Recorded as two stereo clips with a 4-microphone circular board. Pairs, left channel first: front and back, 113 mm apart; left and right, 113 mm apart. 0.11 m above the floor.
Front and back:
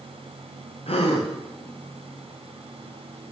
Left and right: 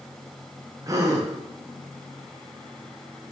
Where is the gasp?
30° right, 3 m.